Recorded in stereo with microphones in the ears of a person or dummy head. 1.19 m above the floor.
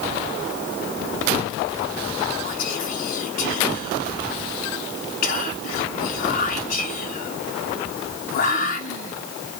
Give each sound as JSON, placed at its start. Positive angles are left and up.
{"t": 2.4, "sound": "whispering", "side_deg": 45, "distance_m": 0.6}